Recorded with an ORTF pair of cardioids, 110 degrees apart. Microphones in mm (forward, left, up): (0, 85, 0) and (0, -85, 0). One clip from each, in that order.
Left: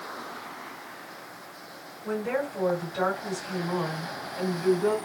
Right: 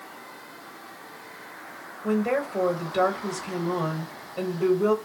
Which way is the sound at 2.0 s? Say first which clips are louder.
Right 3 dB; 60° right.